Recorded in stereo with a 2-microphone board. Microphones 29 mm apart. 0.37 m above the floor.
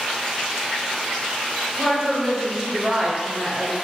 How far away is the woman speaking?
About 1.0 m.